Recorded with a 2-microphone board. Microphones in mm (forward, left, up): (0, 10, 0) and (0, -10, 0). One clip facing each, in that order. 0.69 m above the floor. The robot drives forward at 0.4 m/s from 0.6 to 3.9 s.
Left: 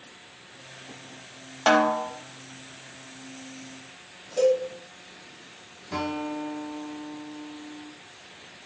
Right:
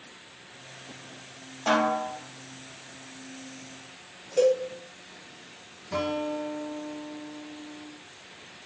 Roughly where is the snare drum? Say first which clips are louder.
Left 4 dB; left.